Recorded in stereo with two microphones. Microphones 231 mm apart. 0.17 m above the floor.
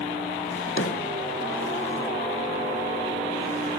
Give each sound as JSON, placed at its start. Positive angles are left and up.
{"t": 0.5, "sound": "a drawer", "side_deg": 70, "distance_m": 1.2}